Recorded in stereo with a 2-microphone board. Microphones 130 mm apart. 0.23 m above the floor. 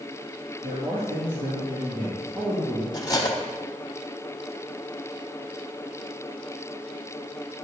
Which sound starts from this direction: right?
A man speaking, at 0.6 s.